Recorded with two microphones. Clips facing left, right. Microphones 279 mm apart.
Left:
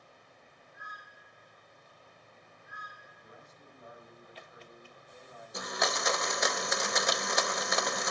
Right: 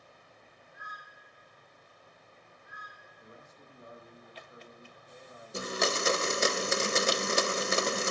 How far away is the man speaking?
About 5.5 m.